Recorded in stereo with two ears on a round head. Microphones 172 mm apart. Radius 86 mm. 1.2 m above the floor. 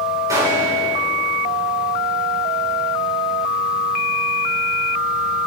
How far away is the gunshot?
About 5.5 m.